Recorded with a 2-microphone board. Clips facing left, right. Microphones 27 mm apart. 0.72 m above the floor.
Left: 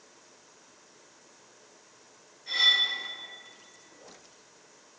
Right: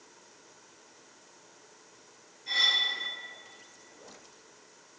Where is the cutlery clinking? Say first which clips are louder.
Left 2 dB; 5° right (ahead or behind), 1.7 m.